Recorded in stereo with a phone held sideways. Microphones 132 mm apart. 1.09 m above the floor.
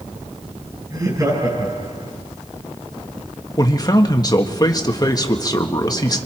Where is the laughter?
30° right (ahead or behind), 9.5 m.